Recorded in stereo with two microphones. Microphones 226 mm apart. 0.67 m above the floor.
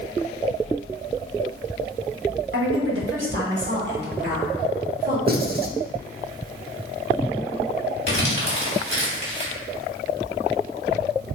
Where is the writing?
45° right (ahead or behind), 0.5 m.